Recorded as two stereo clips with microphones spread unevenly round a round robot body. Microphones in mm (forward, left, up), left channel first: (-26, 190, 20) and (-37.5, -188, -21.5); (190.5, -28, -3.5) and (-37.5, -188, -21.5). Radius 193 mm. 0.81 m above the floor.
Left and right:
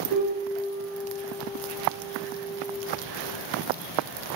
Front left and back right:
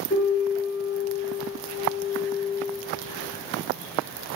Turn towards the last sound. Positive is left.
turn(degrees=-30)